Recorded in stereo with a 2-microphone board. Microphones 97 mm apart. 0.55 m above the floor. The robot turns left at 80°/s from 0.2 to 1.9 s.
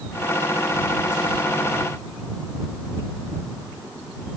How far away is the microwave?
No microwave in this recording.